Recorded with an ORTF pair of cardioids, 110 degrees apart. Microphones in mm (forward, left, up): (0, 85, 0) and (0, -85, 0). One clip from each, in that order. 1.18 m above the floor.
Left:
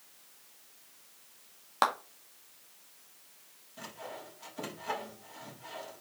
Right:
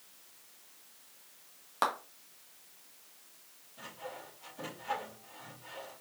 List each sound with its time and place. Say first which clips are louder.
1.8 s a clap: left 3 dB; 30° left, 1.9 m
3.8 s sawing: left 1 dB; 55° left, 3.5 m